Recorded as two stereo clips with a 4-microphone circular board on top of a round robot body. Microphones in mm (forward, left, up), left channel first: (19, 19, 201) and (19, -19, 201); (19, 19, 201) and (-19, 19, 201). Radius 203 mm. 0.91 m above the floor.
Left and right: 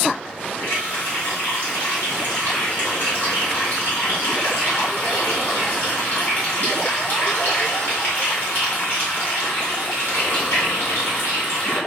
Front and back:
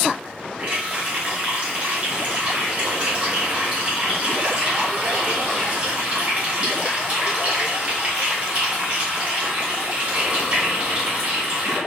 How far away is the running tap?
About 1.2 m.